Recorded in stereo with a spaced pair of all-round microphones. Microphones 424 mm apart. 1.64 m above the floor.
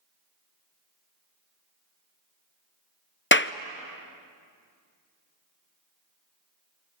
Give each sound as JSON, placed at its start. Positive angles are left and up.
{"t": 3.3, "sound": "a clap", "side_deg": 25, "distance_m": 0.6}